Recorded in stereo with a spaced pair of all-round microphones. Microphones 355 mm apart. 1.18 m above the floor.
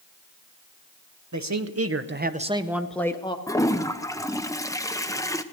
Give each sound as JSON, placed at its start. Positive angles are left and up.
{"t": 1.3, "sound": "a man speaking", "side_deg": -55, "distance_m": 0.9}
{"t": 3.5, "sound": "a toilet flushing", "side_deg": 10, "distance_m": 0.6}